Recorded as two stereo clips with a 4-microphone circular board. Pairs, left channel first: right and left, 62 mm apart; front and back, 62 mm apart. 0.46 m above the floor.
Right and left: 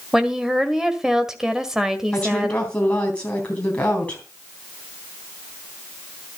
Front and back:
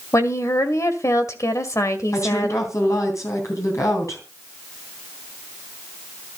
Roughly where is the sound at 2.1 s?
Ahead.